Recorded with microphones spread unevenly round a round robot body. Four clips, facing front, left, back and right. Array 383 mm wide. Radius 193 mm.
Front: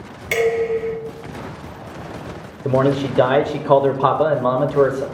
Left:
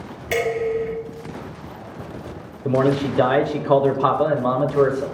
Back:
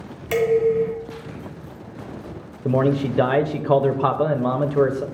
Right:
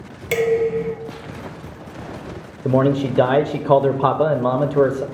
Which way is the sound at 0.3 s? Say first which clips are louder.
Right 4 dB, back 1 dB; 120° right.